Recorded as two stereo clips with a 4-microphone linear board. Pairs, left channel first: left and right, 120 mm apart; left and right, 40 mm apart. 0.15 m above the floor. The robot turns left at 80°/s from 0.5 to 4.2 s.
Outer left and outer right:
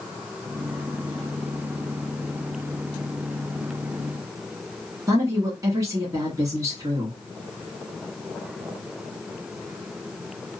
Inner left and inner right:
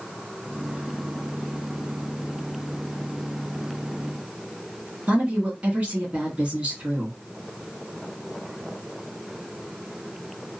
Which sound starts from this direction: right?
A woman speaking, at 5.1 s.